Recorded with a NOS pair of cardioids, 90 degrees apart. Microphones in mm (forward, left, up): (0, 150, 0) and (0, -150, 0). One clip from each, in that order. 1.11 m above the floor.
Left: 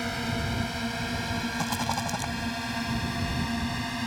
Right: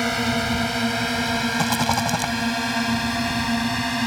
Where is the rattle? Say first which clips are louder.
Right 7 dB; 55° right.